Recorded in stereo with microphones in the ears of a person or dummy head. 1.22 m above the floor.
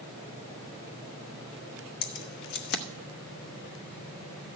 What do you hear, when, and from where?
2.0 s keys jangling: 60° left (ahead or behind), 1.0 m